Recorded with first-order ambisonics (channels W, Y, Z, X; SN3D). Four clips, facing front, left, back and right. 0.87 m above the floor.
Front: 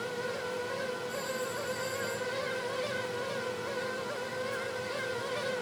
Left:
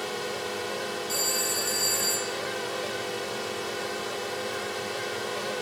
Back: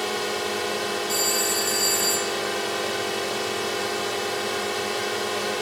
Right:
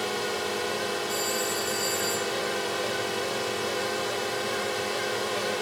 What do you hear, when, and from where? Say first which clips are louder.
0.0 s a drone: right 3 dB, back 9 dB; 165° right
1.1 s a phone ringing: even, back 11 dB; 160° left